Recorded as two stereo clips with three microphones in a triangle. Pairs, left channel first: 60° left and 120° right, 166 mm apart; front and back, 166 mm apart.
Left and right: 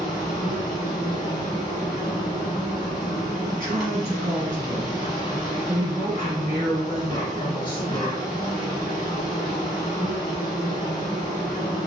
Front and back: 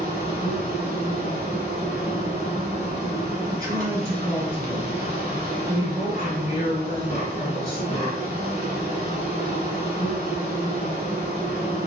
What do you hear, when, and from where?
0.0 s an insect: 5° left, 1.3 m
3.5 s a woman speaking: 125° right, 1.7 m